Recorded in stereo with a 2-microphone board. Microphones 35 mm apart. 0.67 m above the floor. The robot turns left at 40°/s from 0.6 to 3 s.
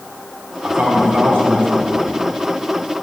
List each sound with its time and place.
0.6 s a man speaking: 60° right, 4.5 m; by 2.2 s 120° right, 4.5 m